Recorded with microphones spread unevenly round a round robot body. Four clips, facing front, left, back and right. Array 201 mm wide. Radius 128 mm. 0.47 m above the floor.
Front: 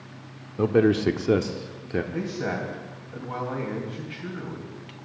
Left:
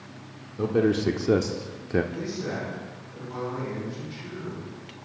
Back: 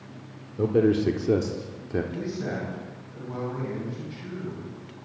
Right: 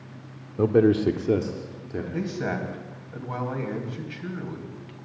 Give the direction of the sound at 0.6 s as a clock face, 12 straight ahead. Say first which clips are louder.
Right 4 dB, front 1 dB; 3 o'clock.